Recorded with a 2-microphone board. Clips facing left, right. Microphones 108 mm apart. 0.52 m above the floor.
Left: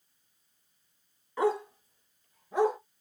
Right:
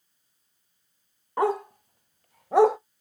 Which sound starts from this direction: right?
A dog barking, at 1.4 s.